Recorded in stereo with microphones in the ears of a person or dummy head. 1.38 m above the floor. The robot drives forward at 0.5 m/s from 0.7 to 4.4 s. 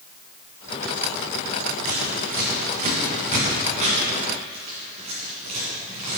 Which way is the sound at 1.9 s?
50° right (ahead or behind).